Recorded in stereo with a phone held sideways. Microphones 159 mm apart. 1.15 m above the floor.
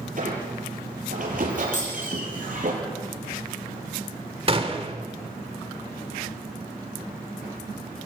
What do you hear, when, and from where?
0.2 s a squeak: 55° right (ahead or behind), 7 m
1.7 s a dropped coin: 50° left (ahead or behind), 7.5 m
4.5 s a gunshot: 35° right (ahead or behind), 2 m